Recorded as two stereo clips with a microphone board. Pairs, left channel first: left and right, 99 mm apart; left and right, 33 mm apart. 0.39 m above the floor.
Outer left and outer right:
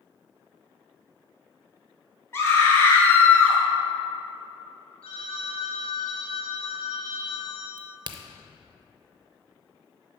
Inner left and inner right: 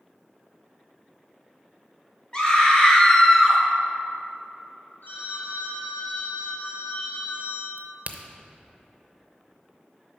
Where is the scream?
25° left (ahead or behind), 2.5 m; by 3.6 s 15° left (ahead or behind), 1.4 m.